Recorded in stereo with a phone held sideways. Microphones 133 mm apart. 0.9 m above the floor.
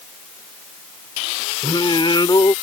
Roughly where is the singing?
Left.